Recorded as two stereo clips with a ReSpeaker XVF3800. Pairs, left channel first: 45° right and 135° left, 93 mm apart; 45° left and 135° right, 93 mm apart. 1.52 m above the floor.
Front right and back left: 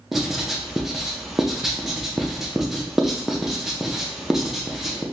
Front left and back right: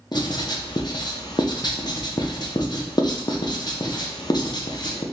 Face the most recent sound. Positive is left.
turn(degrees=50)